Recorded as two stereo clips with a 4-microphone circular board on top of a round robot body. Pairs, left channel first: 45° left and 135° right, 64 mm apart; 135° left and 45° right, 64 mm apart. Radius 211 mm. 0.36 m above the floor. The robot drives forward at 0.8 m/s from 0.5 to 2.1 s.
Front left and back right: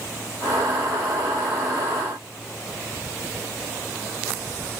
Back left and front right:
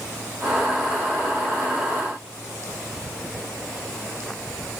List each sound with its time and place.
Only background noise.